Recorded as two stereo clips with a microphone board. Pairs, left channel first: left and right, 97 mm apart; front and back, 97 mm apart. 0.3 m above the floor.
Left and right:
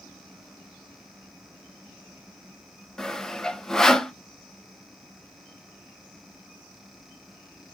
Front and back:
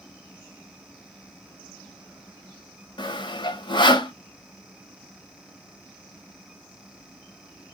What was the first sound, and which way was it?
Sawing, 5° left.